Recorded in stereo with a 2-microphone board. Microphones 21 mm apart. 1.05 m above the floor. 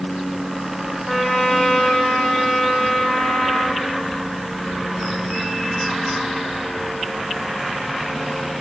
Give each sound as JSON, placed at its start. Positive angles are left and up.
{"t": 1.1, "sound": "a trumpet", "side_deg": 25, "distance_m": 3.0}